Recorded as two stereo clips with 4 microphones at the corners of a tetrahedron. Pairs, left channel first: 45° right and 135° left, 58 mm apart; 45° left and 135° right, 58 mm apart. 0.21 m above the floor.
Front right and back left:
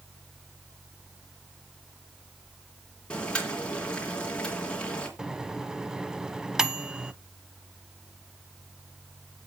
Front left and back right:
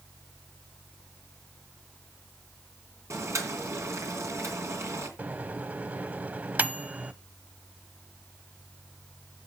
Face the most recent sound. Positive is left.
turn(degrees=-155)